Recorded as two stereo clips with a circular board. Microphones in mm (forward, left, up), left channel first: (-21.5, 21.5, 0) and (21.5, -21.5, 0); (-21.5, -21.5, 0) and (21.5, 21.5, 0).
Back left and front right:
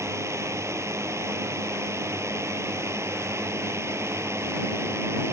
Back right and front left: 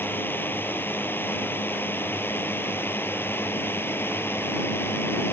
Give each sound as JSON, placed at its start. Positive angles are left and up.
{"t": 0.0, "sound": "a drone", "azimuth_deg": -80}